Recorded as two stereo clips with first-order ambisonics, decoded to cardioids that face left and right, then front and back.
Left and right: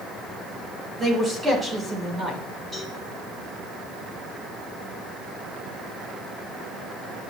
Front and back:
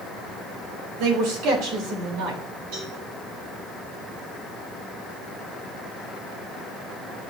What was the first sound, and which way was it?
A man speaking, 165° right.